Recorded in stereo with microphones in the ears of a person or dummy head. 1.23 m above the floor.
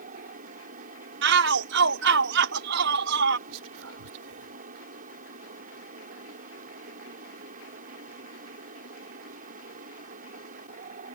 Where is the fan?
50° right (ahead or behind).